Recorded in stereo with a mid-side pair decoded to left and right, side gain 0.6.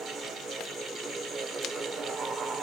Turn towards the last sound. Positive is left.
turn(degrees=-45)